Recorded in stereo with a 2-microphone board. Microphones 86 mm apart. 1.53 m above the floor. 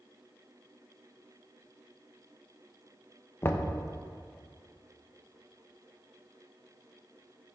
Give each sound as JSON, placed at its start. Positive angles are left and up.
{"t": 3.4, "sound": "knocking", "side_deg": 30, "distance_m": 0.7}